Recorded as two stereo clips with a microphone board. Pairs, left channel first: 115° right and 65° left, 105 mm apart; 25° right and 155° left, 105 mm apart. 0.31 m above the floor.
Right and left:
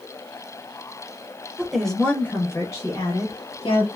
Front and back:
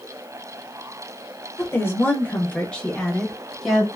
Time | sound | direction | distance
1.6 | a woman speaking | 10° right | 0.9 m